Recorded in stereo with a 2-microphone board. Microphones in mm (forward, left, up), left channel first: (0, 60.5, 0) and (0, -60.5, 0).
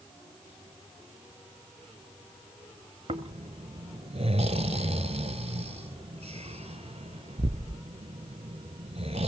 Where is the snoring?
60° right (ahead or behind), 0.8 m.